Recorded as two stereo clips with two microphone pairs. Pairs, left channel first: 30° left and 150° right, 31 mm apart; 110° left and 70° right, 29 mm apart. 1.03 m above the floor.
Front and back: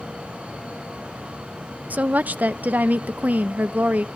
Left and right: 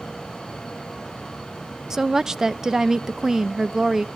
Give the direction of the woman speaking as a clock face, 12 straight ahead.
5 o'clock.